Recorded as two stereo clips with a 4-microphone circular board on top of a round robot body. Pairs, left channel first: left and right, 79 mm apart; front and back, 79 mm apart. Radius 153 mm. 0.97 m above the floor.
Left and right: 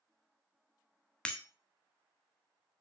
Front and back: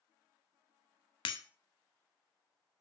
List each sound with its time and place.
1.2 s breaking glass: 15° left, 0.9 m